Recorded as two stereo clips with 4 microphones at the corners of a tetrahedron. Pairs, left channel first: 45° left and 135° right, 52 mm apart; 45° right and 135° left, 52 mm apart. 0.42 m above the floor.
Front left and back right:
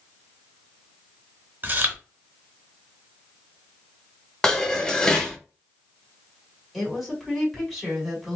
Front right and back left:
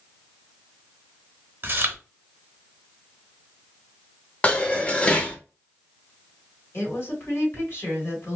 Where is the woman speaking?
50° right, 1.9 m.